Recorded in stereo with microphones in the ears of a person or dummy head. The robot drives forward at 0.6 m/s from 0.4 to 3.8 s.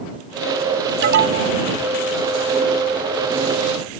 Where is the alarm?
65° right (ahead or behind); by 1.5 s 60° right (ahead or behind).